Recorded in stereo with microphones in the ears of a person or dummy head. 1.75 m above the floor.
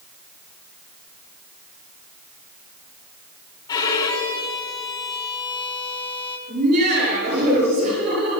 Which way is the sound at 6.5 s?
50° right (ahead or behind).